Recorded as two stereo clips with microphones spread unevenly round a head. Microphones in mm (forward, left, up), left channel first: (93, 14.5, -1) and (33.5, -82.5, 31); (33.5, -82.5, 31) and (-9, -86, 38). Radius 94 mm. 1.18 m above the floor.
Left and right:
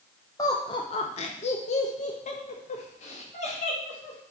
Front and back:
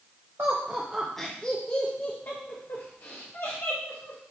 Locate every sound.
0.4 s laughter: 120° left, 0.8 m; by 4.2 s 45° left, 2 m